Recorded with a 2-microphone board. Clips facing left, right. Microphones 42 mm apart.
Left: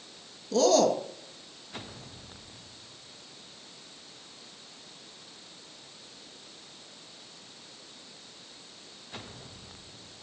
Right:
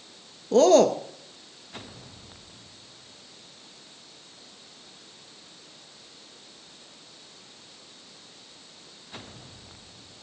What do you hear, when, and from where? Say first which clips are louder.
0.5 s a man speaking: right 5 dB; 35° right (ahead or behind), 1.6 m